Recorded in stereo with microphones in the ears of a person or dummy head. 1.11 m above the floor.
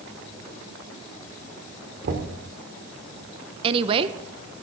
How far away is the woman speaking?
About 0.9 m.